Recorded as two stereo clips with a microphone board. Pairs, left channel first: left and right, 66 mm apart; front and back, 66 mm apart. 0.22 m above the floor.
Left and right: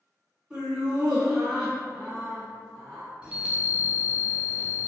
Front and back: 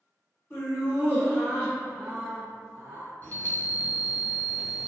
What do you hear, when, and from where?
0.5 s laughter: 20° right, 1.9 m; by 3.1 s 160° left, 1.7 m
3.2 s a chime: 30° right, 0.7 m